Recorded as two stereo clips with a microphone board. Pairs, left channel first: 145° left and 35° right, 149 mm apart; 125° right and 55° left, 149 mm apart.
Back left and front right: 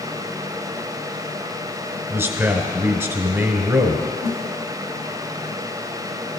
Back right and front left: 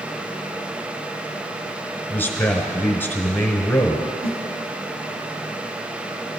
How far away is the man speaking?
About 1.1 m.